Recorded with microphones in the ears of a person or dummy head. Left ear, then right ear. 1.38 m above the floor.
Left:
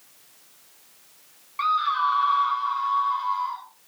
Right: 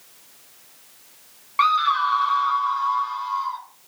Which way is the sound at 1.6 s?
35° right (ahead or behind).